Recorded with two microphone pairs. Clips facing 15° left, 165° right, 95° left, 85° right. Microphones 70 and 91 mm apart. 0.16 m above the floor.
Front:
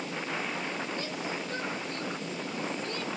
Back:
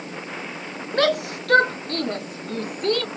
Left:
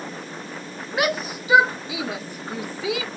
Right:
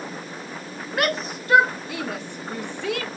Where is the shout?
Straight behind.